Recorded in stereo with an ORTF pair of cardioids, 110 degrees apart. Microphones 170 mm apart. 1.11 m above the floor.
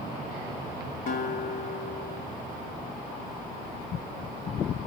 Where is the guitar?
50° left, 2.5 m.